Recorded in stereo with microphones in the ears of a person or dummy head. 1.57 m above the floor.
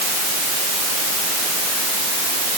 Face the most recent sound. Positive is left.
No sound to turn to.